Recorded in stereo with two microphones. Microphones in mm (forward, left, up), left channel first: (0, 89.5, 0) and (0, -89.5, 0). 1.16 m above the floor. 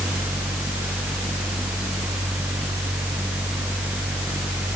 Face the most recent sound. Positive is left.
No sound to turn to.